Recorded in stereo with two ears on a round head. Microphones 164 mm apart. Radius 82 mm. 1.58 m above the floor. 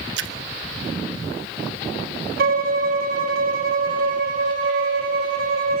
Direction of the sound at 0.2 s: 70° right (ahead or behind).